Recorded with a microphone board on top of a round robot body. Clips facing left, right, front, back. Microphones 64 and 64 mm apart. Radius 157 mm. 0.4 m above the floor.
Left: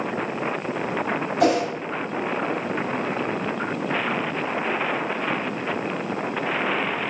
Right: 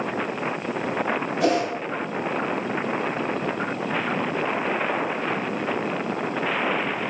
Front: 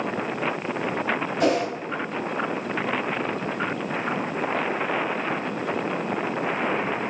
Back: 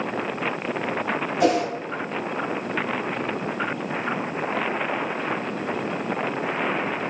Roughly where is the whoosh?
Left.